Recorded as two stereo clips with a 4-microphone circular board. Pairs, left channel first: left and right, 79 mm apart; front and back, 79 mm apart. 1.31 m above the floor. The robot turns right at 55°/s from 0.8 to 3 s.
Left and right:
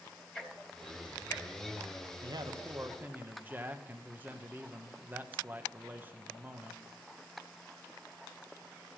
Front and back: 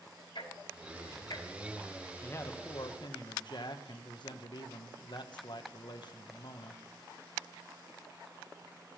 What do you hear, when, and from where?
0.3 s ticking: 10° left, 4 m; by 1.5 s 45° left, 4 m
2.2 s a man speaking: 65° right, 1.4 m; by 6.8 s 25° right, 1.4 m